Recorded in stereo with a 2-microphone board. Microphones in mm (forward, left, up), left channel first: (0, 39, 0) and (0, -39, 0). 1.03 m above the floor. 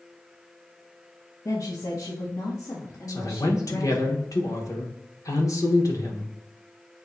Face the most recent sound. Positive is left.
turn(degrees=50)  # may be behind; listen again after turning